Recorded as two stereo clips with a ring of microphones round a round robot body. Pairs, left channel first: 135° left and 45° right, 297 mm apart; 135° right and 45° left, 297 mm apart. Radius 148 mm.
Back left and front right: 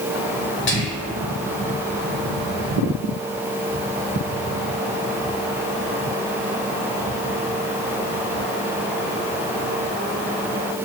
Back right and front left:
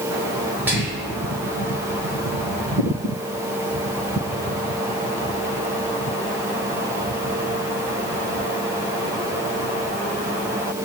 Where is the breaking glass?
I don't hear breaking glass.